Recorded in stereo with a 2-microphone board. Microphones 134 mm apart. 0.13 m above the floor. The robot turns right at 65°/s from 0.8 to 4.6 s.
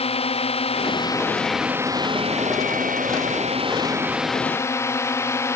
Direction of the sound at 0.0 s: 135° left.